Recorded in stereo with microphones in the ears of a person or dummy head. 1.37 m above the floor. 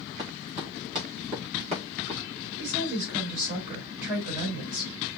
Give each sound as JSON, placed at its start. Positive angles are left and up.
{"t": 0.2, "sound": "running footsteps", "side_deg": -25, "distance_m": 5.0}
{"t": 2.6, "sound": "a woman speaking", "side_deg": -20, "distance_m": 4.0}